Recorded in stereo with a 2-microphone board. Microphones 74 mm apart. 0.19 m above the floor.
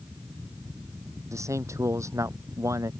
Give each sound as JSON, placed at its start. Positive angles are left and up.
{"t": 1.3, "sound": "a man speaking", "side_deg": -45}